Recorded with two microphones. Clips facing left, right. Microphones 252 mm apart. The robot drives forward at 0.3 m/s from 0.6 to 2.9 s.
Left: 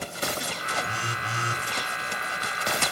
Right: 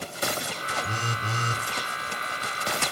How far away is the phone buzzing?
About 1.7 m.